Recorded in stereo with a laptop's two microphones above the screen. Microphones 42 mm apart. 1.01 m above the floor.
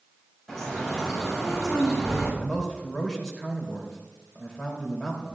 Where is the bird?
5° left (ahead or behind), 6.5 m.